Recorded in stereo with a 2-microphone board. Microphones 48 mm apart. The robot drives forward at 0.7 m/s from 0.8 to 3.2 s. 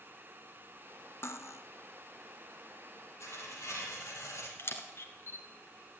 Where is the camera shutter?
60° left (ahead or behind), 1.8 m.